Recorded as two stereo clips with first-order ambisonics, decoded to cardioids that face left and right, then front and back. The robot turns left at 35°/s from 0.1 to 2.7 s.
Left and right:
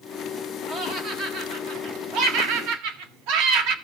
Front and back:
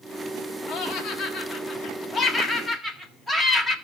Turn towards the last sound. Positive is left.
turn(degrees=-90)